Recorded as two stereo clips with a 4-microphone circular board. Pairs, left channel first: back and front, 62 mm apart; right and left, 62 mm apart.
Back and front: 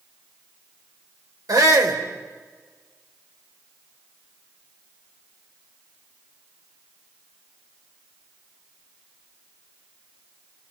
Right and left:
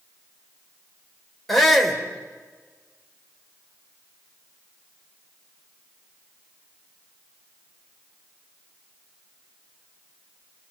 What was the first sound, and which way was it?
A shout, 5° right.